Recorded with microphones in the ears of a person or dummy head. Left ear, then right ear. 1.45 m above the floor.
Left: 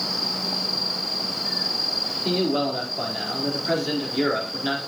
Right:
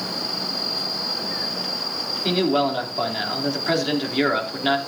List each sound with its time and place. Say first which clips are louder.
2.2 s a man speaking: right 5 dB; 25° right (ahead or behind), 4 m